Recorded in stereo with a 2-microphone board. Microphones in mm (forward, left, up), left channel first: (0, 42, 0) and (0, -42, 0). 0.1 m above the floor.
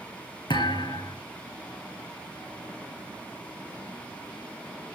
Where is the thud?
65° left (ahead or behind), 3 m.